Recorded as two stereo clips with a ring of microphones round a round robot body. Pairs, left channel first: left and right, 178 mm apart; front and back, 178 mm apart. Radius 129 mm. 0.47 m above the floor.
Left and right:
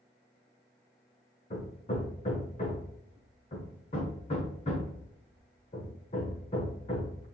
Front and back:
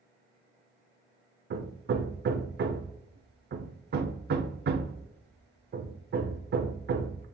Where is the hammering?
150° left, 0.6 m.